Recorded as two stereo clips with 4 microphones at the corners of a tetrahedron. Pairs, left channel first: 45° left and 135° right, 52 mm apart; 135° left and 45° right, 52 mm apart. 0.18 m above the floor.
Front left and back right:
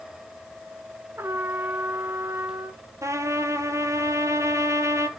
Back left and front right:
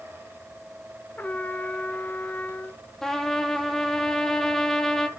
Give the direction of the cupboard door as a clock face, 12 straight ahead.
I don't hear a cupboard door.